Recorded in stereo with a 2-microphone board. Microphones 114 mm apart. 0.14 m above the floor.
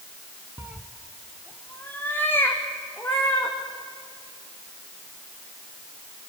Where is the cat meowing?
20° right (ahead or behind), 0.6 m; by 3.5 s 20° left (ahead or behind), 4 m.